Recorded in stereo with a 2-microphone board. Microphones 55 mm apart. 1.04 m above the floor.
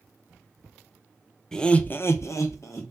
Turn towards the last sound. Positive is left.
turn(degrees=55)  # may be behind; listen again after turning